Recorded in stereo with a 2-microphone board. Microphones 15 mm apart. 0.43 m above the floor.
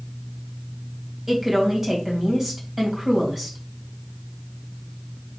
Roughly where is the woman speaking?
Centre.